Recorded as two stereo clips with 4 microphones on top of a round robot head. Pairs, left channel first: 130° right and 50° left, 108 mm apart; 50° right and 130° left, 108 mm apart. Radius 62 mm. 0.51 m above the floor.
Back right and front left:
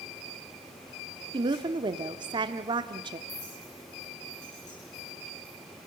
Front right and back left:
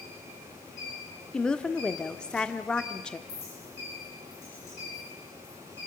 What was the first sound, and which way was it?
A woman speaking, 30° left.